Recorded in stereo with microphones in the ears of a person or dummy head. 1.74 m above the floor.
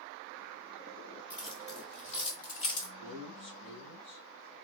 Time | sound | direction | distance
1.3 | keys jangling | 35° left (ahead or behind) | 2.0 m
3.0 | a man speaking | 55° left (ahead or behind) | 2.5 m